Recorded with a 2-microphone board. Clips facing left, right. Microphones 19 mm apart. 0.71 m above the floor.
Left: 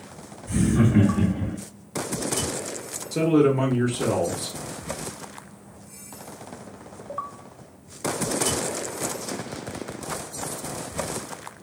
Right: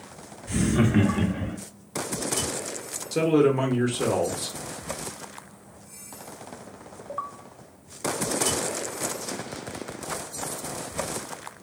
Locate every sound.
0.5 s laughter: 45° right (ahead or behind), 1.3 m
3.1 s a man speaking: 25° right (ahead or behind), 1.0 m